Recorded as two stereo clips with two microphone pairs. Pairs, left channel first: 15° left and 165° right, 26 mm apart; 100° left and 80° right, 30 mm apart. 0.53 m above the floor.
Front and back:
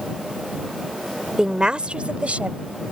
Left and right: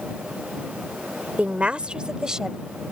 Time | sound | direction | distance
1.4 | a woman speaking | 105° right | ?